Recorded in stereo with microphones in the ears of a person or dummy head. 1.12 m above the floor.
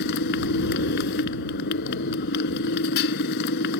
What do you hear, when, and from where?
0.0 s a motorcycle: 60° left (ahead or behind)